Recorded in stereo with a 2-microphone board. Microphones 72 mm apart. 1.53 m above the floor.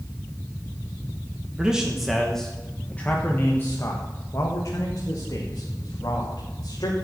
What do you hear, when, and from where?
1.6 s a man speaking: 10° right (ahead or behind), 1.4 m; by 6.9 s 70° left (ahead or behind), 3 m